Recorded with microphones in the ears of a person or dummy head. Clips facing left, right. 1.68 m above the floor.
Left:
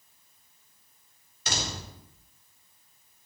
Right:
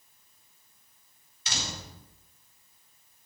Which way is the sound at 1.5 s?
45° left (ahead or behind).